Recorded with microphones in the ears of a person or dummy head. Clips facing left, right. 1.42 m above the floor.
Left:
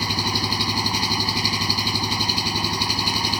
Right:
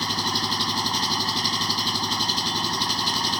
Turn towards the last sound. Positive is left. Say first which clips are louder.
# left 3 dB
turn(degrees=10)  # may be behind; listen again after turning